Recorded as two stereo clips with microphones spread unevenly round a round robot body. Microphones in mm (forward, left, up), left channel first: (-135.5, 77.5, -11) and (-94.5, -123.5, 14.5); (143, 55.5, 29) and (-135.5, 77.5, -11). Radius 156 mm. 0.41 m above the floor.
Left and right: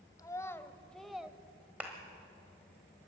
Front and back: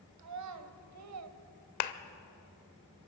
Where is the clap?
10° left, 1.0 m.